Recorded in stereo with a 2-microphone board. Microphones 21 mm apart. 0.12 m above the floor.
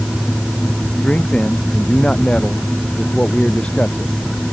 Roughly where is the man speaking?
Left.